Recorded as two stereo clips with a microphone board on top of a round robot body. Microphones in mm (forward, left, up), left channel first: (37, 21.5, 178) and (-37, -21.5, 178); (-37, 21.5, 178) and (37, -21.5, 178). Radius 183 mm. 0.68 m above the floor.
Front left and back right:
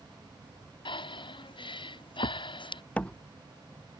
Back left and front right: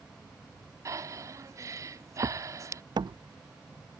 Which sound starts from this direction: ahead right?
A door slam, at 3.0 s.